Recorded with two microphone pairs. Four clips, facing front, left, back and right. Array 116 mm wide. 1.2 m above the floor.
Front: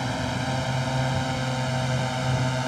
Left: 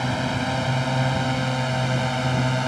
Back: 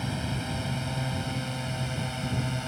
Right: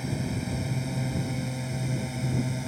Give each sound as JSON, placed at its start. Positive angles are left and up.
{"t": 0.0, "sound": "a drone", "azimuth_deg": 65}